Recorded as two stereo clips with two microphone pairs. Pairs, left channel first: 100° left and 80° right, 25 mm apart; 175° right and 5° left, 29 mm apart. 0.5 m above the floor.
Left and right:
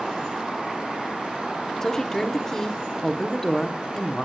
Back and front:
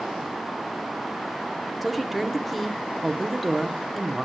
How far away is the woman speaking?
About 0.6 m.